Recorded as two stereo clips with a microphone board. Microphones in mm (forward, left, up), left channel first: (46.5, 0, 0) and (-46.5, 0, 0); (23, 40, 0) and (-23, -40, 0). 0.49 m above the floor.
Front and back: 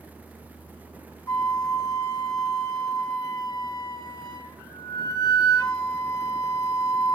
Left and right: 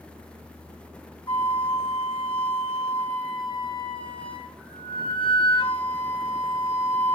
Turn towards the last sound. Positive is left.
turn(degrees=45)